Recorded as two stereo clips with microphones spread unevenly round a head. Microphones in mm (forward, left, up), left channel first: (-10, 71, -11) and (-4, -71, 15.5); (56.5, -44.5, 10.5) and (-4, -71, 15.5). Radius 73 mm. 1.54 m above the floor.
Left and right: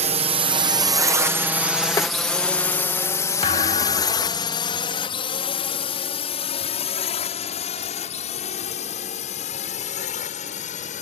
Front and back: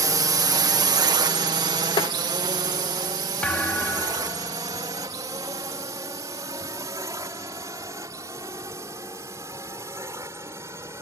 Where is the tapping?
20° left.